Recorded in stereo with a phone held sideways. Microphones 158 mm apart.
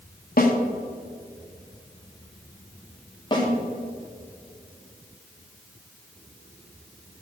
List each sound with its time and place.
0.4 s a snare drum: 65° left (ahead or behind), 1.4 m
3.3 s a snare drum: 30° left (ahead or behind), 2.5 m